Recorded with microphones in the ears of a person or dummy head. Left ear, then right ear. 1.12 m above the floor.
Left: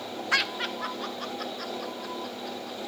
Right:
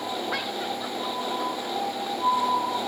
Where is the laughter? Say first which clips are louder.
Left 2 dB; 60° left (ahead or behind), 0.7 m; by 2.8 s 75° left (ahead or behind), 3 m.